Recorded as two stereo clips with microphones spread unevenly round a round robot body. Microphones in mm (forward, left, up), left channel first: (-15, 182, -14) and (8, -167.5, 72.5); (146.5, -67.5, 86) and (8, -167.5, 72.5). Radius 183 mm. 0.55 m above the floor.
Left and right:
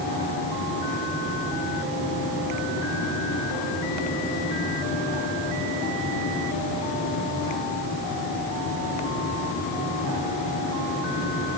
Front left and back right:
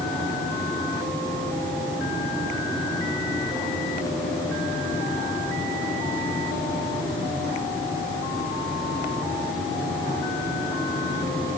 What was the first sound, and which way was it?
Only background noise.